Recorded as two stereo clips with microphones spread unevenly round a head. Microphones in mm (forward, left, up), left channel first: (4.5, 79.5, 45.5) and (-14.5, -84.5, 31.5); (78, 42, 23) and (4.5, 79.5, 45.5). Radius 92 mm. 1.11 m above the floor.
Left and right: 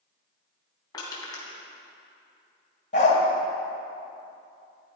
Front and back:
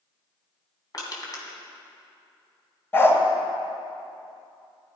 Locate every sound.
0.9 s crushing: 15° left, 3 m
2.9 s a dog barking: 40° left, 2.5 m